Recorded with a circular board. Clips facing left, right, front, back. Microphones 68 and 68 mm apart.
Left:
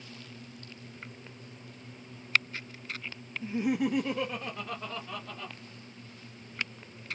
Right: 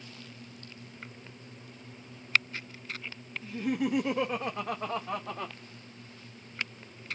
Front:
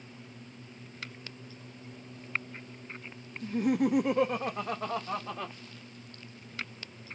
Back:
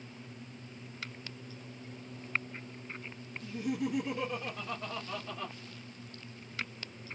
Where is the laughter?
40° left, 0.5 m; by 5.5 s 55° right, 1.3 m.